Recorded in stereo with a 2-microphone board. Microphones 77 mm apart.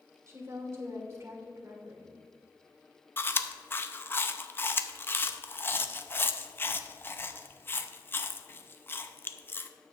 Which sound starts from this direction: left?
Chewing, at 3.2 s.